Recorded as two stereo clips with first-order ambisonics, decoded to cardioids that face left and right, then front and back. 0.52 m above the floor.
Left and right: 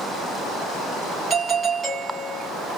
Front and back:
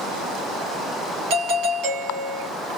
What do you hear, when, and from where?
1.3 s a doorbell: 160° right, 3 m